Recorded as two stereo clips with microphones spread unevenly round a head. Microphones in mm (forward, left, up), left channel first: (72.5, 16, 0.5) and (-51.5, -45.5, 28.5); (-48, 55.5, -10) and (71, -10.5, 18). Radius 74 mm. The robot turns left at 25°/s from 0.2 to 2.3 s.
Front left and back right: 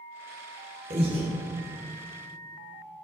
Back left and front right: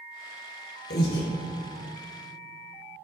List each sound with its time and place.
0.9 s breathing: 160° left, 0.6 m; by 1.3 s 150° left, 0.6 m